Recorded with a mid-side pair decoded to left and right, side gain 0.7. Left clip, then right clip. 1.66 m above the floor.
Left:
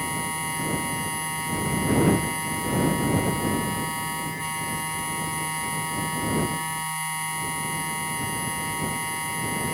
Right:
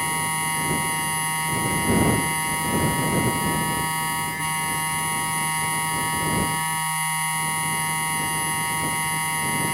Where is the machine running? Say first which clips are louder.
Right 4 dB; 25° right.